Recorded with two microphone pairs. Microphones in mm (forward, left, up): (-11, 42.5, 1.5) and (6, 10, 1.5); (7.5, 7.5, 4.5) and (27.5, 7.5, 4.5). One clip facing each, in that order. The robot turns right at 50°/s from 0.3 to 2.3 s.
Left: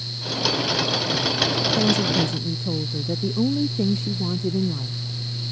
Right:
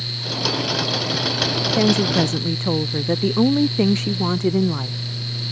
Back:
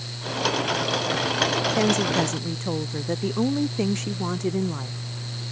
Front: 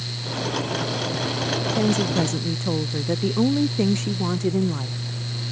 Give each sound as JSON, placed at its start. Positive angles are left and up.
{"t": 1.8, "sound": "a woman speaking", "azimuth_deg": -115}